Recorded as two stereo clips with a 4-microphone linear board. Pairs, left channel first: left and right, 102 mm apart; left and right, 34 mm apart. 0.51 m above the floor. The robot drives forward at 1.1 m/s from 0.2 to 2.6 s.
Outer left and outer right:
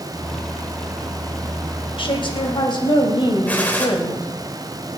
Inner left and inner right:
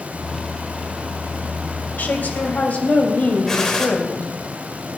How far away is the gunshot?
About 2.5 m.